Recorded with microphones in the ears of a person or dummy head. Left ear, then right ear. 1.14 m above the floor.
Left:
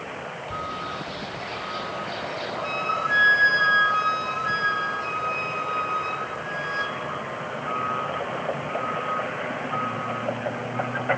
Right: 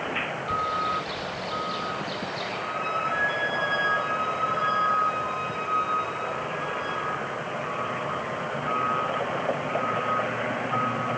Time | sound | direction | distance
0.5 | a bird | 30° right (ahead or behind) | 4.5 m
2.6 | a flute | 60° left (ahead or behind) | 3 m